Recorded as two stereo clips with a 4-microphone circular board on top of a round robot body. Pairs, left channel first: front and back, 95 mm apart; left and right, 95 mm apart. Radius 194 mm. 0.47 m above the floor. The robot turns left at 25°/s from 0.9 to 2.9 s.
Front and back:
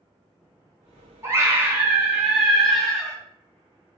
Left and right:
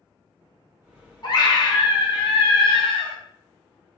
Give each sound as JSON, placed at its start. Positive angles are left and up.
{"t": 1.2, "sound": "a scream", "azimuth_deg": 125, "distance_m": 2.0}